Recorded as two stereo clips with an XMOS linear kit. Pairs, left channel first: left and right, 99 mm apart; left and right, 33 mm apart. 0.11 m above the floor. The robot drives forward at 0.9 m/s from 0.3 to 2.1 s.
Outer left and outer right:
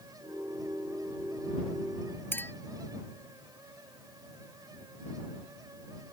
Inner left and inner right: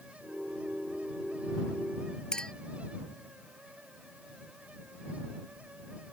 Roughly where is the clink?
Left.